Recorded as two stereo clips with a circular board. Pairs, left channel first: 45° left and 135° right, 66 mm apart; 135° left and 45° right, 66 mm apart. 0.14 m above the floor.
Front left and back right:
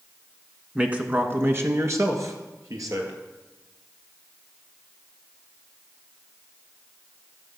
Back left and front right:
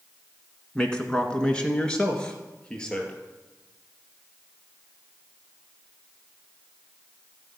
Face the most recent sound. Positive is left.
turn(degrees=-150)